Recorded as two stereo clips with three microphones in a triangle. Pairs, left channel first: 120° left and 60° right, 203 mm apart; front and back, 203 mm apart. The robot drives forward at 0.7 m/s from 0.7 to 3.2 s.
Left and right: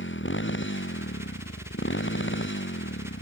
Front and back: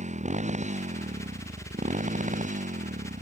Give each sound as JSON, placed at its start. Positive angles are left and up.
{"t": 0.0, "sound": "a motorcycle", "azimuth_deg": 130}